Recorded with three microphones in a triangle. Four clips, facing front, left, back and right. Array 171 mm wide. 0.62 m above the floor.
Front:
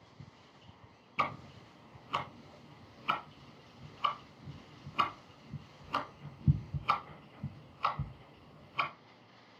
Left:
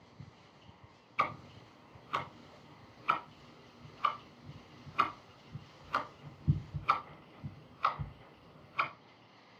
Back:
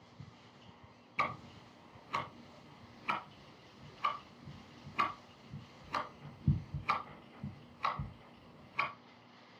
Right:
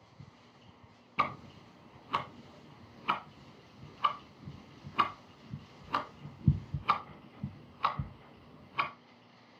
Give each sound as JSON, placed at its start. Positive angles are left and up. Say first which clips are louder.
{"t": 1.2, "sound": "ticking", "louder": "right 1 dB, front 2 dB", "azimuth_deg": -80, "distance_m": 2.0}